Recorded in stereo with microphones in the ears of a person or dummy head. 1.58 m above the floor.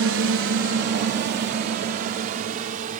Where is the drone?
65° right (ahead or behind); by 3.0 s 45° right (ahead or behind).